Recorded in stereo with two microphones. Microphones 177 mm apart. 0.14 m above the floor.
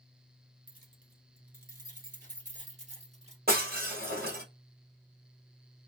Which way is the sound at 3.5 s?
60° right (ahead or behind).